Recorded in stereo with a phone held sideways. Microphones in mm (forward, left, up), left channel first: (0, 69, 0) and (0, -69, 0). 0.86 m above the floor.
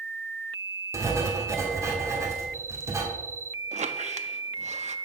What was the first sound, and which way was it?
Writing, 20° right (ahead or behind).